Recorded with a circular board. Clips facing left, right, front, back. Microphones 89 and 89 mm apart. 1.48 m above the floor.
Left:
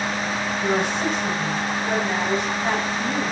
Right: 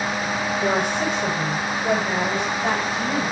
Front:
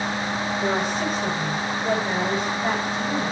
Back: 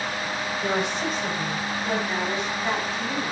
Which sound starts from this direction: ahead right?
A woman speaking, at 0.6 s.